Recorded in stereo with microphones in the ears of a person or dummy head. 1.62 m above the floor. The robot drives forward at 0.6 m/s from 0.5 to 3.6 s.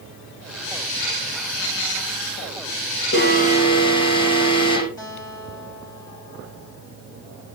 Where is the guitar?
40° left (ahead or behind), 6.5 m.